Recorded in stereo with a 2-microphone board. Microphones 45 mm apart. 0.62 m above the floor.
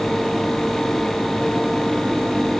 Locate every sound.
Only background noise.